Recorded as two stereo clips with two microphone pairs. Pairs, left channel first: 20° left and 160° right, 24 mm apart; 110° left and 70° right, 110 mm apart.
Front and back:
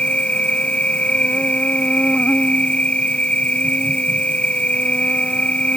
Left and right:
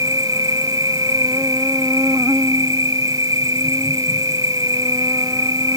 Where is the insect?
10° right.